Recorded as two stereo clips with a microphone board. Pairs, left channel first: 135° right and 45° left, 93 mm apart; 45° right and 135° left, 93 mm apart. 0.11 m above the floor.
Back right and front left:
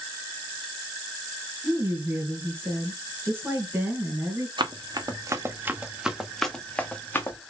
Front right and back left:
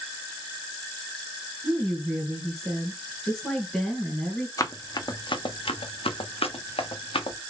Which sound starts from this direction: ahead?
Running footsteps, at 4.6 s.